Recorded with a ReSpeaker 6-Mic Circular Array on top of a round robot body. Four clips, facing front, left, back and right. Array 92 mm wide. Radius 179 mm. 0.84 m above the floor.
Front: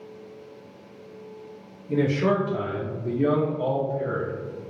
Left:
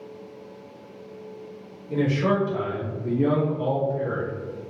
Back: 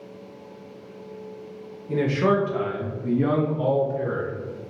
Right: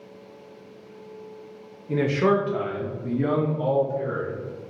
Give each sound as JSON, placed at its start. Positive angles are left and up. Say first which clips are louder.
{"t": 1.9, "sound": "a man speaking", "louder": "right 2 dB, back 1 dB", "azimuth_deg": -105, "distance_m": 1.1}